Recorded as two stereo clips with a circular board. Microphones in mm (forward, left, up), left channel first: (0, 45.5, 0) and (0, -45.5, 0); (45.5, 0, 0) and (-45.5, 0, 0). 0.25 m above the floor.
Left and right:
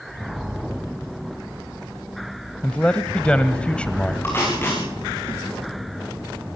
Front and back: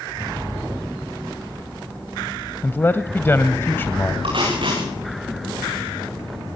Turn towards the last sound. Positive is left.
turn(degrees=155)